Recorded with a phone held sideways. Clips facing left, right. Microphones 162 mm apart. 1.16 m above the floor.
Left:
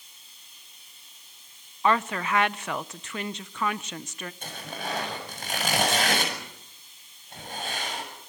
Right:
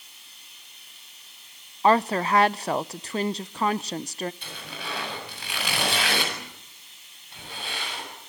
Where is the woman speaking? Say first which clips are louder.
Right 5 dB; 35° right (ahead or behind), 0.6 m.